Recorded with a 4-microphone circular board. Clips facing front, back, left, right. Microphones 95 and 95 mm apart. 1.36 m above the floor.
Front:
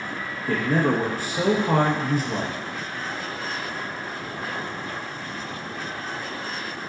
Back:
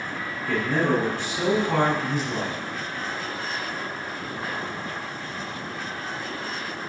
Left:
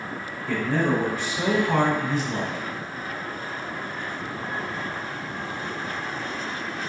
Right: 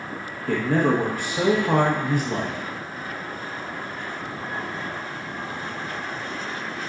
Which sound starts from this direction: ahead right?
A man speaking, at 0.5 s.